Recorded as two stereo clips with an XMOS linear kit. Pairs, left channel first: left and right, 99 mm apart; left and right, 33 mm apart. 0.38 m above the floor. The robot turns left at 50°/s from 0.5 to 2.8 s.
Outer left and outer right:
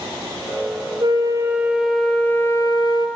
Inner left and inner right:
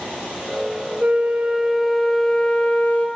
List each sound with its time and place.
1.0 s a flute: 135° right, 1.8 m; by 3.1 s 135° left, 1.8 m